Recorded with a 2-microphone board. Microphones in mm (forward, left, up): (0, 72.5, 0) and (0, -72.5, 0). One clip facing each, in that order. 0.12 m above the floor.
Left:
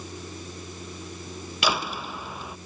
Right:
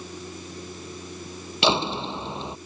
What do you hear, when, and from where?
1.6 s a door slam: 30° right (ahead or behind)